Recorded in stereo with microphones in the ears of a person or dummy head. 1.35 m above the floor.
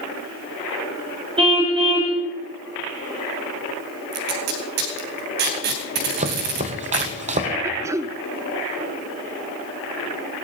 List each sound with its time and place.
1.4 s a car horn: 25° right (ahead or behind), 3.5 m
4.1 s tape being pulled: 50° right (ahead or behind), 2.5 m
6.2 s chopping: 30° right (ahead or behind), 1.2 m
7.6 s throat clearing: 10° right (ahead or behind), 0.8 m